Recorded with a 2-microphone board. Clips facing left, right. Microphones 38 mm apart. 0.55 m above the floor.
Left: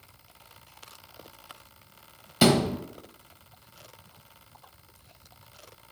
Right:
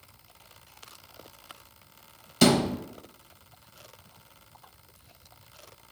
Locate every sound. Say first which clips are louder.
2.4 s a thud: even; 10° left (ahead or behind), 0.8 m